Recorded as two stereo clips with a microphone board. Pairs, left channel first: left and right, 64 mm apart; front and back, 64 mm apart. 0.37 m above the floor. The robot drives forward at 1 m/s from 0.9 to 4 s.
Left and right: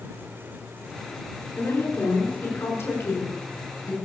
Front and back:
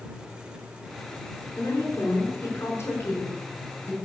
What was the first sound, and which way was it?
A woman speaking, 40° left.